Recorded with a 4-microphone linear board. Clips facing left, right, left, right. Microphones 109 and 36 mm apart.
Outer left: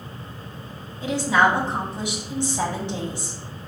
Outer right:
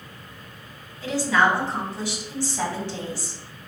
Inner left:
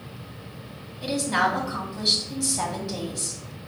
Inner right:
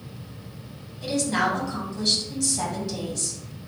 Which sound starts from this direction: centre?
A woman speaking, at 1.0 s.